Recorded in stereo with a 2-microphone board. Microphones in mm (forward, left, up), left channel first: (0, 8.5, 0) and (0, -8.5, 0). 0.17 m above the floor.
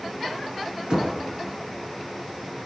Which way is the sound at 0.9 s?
50° right (ahead or behind).